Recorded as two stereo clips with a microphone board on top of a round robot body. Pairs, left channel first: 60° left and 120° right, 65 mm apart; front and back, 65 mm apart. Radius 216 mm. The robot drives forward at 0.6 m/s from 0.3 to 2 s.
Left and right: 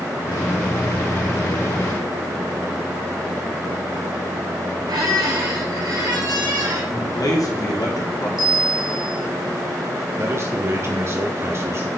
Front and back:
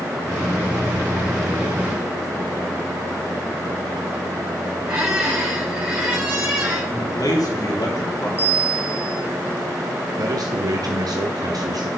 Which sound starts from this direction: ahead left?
A man speaking, at 6.9 s.